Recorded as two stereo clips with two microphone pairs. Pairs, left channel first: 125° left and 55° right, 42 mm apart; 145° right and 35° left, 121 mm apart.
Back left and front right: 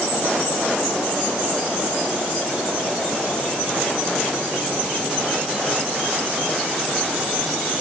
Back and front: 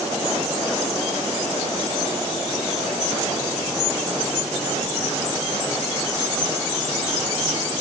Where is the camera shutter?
No camera shutter in this recording.